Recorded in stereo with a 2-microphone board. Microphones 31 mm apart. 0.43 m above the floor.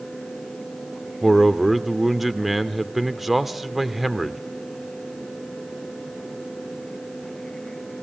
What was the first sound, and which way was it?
A man speaking, 5° right (ahead or behind).